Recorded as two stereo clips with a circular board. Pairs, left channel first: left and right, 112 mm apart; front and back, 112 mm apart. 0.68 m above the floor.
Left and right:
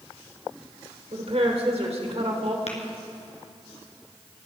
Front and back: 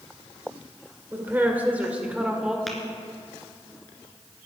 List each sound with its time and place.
1.1 s a woman speaking: 110° right, 2.5 m; by 2.6 s 100° right, 2 m
2.7 s tapping: 90° left, 2.5 m